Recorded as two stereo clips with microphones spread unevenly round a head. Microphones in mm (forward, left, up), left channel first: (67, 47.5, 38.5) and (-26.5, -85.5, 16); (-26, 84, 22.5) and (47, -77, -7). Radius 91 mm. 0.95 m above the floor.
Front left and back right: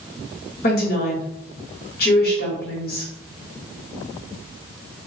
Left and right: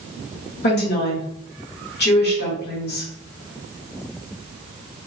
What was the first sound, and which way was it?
A woman speaking, 85° left.